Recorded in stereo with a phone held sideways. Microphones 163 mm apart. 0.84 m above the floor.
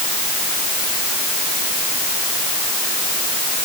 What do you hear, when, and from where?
Only background noise.